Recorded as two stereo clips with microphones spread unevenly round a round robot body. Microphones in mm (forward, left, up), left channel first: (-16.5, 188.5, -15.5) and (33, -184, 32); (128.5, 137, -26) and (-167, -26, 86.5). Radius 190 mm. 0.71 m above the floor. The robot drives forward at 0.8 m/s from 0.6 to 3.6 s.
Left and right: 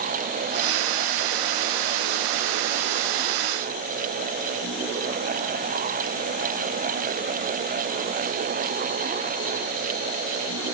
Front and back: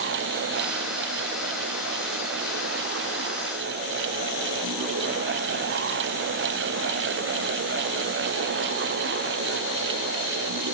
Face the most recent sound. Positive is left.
No sound to turn to.